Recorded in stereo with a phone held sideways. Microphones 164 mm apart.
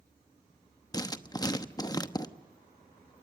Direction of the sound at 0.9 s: 25° left (ahead or behind).